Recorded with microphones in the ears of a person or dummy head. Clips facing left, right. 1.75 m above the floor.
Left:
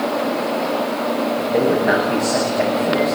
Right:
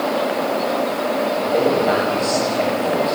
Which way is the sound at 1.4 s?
15° left (ahead or behind).